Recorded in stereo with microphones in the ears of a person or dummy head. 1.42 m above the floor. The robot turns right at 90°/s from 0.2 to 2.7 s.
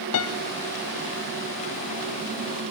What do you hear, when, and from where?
0.1 s a piano: 65° left (ahead or behind), 0.6 m; by 0.4 s 60° left (ahead or behind), 0.6 m